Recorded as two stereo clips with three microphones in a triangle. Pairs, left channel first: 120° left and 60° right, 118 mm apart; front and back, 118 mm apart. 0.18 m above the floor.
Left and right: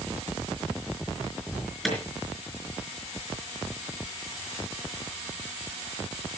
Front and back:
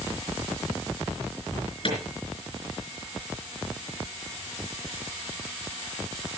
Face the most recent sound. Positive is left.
turn(degrees=30)